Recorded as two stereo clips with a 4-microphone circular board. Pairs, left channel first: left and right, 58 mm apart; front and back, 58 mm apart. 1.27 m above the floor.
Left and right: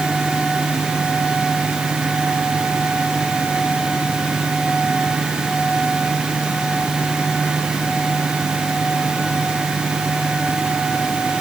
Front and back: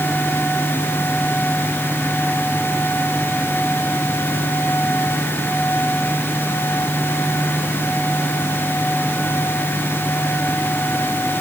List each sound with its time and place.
Only background noise.